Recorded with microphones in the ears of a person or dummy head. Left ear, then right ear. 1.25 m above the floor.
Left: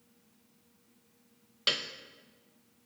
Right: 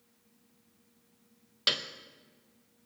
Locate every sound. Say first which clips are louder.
1.7 s a piano: right 1 dB; 15° right (ahead or behind), 0.6 m